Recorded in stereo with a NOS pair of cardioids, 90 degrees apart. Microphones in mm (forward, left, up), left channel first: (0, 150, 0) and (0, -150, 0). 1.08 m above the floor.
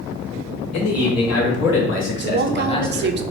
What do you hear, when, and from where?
0.7 s a man speaking: 65° left, 2.0 m; by 3.2 s straight ahead, 0.9 m
2.2 s a woman speaking: 35° right, 0.5 m